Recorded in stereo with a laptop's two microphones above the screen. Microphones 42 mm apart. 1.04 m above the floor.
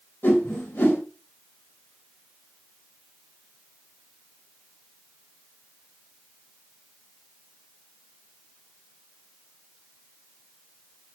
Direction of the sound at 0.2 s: 85° left.